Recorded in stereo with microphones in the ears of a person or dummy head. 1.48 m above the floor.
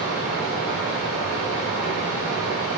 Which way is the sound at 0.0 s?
60° right (ahead or behind).